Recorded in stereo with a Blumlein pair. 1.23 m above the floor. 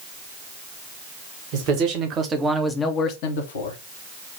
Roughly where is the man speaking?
Ahead right.